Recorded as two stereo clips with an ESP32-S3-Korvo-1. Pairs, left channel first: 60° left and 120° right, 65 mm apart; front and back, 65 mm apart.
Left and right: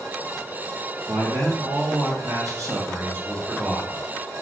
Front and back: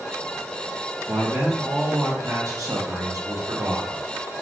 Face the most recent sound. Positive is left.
turn(degrees=160)